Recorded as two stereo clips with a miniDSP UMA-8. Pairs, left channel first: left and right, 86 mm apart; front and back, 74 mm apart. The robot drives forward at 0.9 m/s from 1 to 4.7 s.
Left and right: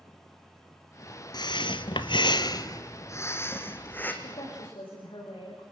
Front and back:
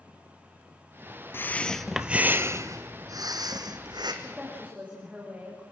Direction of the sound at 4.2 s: 105° left.